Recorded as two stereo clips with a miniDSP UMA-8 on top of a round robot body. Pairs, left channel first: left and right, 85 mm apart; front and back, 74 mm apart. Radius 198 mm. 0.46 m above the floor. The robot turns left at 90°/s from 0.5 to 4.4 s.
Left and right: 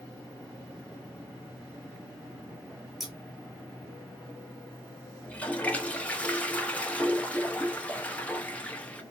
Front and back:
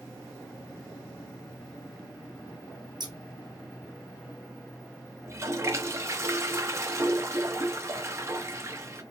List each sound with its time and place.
3.0 s scissors: 175° right, 1.7 m; by 3.1 s 170° left, 1.7 m
5.2 s a toilet flushing: 160° left, 1.4 m